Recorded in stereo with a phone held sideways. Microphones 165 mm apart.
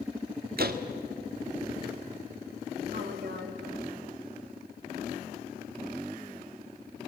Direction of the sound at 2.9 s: 75° right (ahead or behind).